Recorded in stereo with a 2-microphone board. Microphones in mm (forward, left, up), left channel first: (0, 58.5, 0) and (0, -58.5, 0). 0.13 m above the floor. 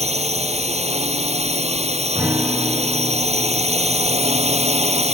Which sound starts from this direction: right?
A drone, at 0.0 s.